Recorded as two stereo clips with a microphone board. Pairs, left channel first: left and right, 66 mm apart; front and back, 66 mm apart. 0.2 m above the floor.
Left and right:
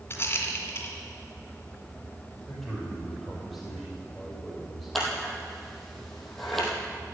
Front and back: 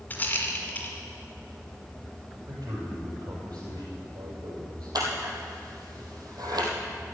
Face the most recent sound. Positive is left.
turn(degrees=180)